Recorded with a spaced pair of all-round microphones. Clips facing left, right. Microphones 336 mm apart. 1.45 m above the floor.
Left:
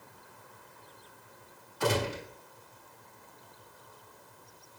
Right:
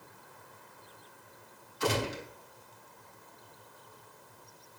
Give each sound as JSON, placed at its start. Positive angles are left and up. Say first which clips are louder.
{"t": 1.8, "sound": "a gunshot", "louder": "left 2 dB", "side_deg": 65, "distance_m": 5.0}